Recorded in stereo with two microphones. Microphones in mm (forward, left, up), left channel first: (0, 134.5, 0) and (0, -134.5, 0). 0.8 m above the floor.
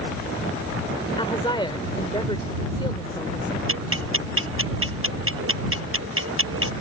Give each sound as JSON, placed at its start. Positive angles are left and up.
{"t": 1.2, "sound": "a woman speaking", "side_deg": 20}
{"t": 3.7, "sound": "ticking", "side_deg": -50}